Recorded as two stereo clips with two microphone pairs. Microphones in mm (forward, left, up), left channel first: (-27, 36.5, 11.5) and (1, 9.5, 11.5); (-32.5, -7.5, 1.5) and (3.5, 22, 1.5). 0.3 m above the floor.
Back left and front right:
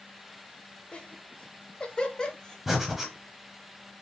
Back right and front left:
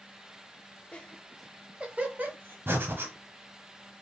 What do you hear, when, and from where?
0.9 s laughter: 175° left, 1.1 m; by 2.6 s 70° left, 1.6 m
2.7 s breathing: 40° left, 1.0 m